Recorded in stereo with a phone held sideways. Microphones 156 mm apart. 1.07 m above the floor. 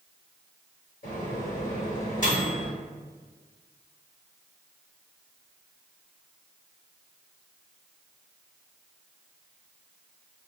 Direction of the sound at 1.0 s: 55° left (ahead or behind).